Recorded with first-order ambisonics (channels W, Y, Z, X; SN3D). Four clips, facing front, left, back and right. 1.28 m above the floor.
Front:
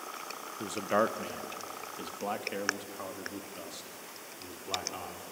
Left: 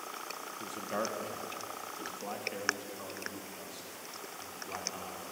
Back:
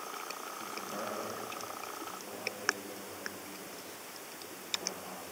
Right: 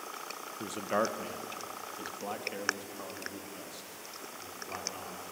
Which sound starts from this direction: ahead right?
A man speaking, at 0.6 s.